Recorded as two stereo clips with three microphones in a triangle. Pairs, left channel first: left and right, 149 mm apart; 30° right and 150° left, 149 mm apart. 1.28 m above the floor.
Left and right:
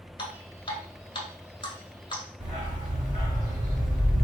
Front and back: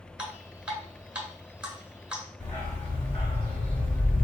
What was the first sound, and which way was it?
Dripping, 70° left.